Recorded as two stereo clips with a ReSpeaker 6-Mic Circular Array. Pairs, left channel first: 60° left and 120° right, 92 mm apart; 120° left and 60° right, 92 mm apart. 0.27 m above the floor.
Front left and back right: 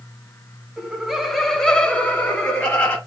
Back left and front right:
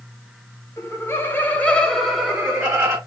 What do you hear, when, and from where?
0.8 s laughter: 160° left, 1.2 m; by 3.0 s straight ahead, 1.3 m